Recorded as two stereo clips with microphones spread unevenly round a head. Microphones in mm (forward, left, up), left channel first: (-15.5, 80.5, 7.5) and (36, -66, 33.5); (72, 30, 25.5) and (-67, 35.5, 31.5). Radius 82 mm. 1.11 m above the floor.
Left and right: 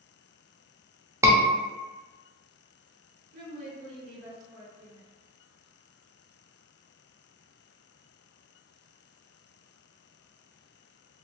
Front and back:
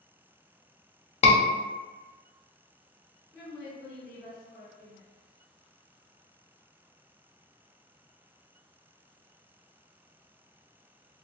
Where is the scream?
5° left, 0.7 m.